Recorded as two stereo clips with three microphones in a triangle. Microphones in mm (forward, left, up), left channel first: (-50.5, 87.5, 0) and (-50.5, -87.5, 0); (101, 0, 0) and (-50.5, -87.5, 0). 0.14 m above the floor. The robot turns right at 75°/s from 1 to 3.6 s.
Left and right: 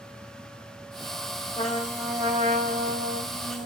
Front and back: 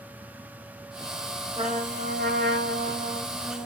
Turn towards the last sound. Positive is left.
turn(degrees=-60)